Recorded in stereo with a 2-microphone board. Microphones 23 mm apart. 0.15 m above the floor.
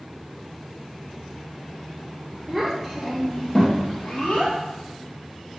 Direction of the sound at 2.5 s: 10° right (ahead or behind).